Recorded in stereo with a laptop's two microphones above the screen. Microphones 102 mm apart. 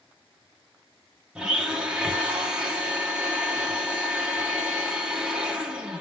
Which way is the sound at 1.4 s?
10° right (ahead or behind).